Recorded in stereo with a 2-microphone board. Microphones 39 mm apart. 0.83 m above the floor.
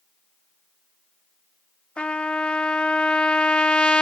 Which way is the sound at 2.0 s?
30° left (ahead or behind).